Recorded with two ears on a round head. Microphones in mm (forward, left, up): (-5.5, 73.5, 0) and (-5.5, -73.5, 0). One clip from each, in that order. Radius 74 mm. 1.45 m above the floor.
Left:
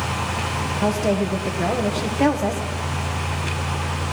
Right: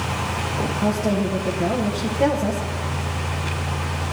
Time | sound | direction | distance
0.8 | a woman speaking | 45° left (ahead or behind) | 0.9 m